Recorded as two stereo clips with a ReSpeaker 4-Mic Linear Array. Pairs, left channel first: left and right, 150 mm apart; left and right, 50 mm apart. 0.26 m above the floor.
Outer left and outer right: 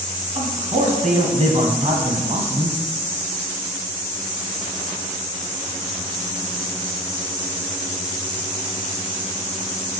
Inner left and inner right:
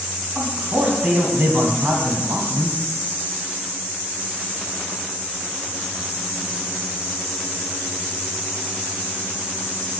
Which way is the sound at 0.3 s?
50° right (ahead or behind).